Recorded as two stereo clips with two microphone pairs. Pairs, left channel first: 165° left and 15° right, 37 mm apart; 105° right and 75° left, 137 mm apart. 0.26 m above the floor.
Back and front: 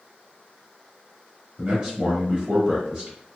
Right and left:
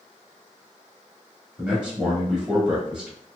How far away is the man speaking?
About 1.4 m.